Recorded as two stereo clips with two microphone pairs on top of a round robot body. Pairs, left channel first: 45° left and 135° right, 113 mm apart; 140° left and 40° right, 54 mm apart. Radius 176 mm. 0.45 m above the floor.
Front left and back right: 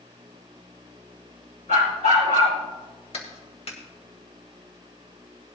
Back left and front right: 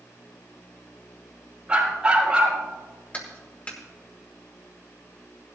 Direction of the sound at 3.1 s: 80° left.